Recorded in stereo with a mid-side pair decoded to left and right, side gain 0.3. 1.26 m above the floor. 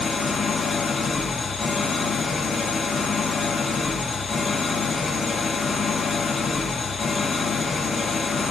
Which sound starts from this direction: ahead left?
An engine running, at 0.0 s.